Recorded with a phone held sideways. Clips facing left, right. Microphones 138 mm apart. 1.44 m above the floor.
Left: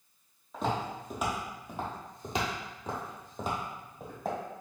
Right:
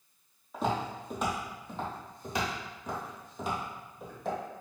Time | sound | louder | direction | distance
0.5 | footsteps | right 1 dB | 5° right (ahead or behind) | 1.9 m